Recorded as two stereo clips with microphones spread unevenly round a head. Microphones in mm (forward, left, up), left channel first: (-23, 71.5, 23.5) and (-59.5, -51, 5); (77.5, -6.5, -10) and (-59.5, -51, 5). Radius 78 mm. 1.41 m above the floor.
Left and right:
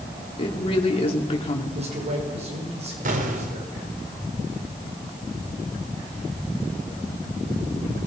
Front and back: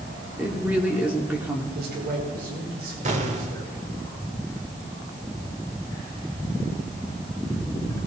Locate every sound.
0.4 s a woman speaking: 115° left, 4.5 m
1.7 s a man speaking: 145° right, 6 m
3.0 s an explosion: 125° right, 3 m